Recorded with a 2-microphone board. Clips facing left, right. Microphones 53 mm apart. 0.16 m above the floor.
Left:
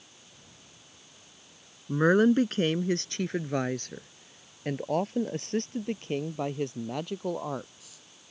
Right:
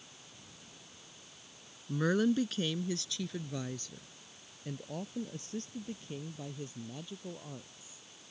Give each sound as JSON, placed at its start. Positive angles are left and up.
{"t": 1.9, "sound": "a woman speaking", "side_deg": 40}